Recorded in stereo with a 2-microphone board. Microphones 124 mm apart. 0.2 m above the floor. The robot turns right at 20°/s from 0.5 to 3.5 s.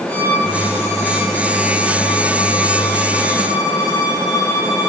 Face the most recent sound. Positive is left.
turn(degrees=30)